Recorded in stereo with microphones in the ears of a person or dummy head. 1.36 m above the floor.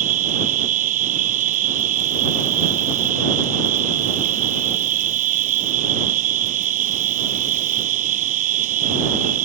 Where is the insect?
50° right (ahead or behind).